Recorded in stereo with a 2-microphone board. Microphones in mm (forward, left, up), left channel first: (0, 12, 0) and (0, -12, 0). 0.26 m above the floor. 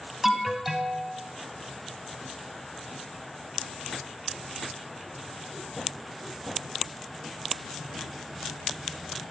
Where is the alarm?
10° right (ahead or behind), 1.3 m.